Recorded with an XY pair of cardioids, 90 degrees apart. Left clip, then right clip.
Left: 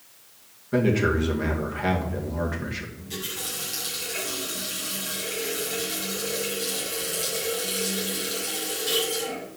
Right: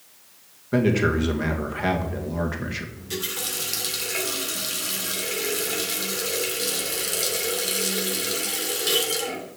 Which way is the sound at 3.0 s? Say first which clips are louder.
Right 3 dB; 60° right.